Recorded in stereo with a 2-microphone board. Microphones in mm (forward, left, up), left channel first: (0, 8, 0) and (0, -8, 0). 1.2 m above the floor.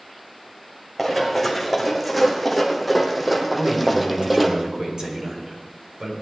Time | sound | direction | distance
1.0 | running footsteps | centre (ahead or behind) | 3.5 m
3.5 | a man speaking | 55° right (ahead or behind) | 4 m